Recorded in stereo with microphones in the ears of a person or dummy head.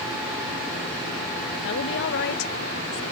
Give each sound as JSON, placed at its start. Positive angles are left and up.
{"t": 1.6, "sound": "a woman speaking", "side_deg": 60}